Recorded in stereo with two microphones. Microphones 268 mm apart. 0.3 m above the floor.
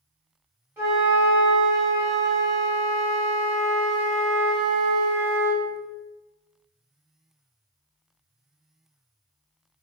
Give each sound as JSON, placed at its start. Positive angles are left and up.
{"t": 0.8, "sound": "a flute", "side_deg": -10, "distance_m": 1.6}